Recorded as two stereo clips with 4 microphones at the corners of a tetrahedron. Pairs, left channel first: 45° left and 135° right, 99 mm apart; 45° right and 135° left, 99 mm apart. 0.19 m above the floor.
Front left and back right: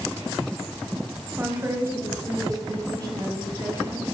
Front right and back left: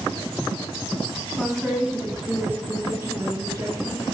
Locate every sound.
1.4 s a woman speaking: 120° right, 1.6 m; by 4.0 s straight behind, 2.5 m